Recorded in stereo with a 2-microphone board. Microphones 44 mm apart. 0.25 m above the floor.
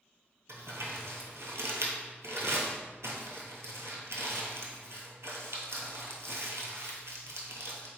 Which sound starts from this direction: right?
Crumpling, at 0.5 s.